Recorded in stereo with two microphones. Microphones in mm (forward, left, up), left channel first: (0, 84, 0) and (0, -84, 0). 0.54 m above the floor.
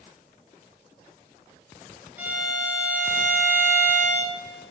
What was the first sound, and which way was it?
A violin, 10° right (ahead or behind).